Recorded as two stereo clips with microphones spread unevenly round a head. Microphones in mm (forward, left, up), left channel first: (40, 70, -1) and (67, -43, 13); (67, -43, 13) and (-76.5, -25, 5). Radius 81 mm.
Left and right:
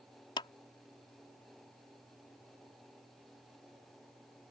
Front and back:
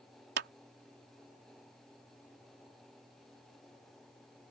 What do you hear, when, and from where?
0.4 s a clap: 170° left